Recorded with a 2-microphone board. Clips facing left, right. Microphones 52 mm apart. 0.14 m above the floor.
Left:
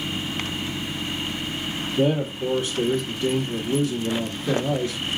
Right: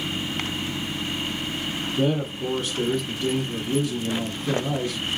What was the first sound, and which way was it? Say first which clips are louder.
A man speaking: left 3 dB; centre (ahead or behind).